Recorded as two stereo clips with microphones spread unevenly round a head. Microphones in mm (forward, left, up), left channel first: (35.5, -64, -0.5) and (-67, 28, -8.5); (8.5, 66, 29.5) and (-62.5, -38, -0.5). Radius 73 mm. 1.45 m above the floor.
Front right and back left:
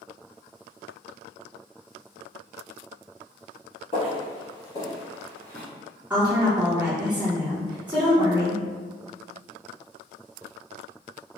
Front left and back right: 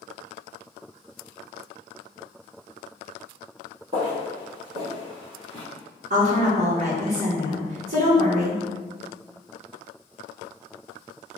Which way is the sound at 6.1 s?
140° right.